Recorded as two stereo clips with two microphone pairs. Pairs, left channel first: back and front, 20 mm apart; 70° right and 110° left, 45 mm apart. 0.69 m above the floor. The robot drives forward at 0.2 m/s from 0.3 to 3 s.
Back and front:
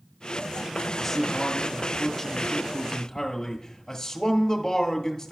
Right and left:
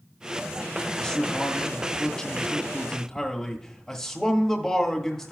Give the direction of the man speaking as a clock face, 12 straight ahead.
4 o'clock.